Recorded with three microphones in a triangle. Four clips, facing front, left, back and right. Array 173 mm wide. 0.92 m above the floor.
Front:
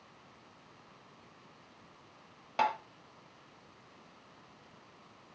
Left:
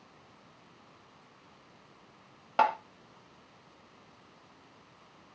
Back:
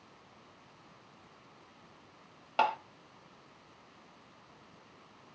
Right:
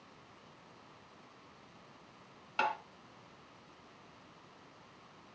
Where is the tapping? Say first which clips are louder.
Left 8 dB, back 1 dB; 105° left, 1.1 m.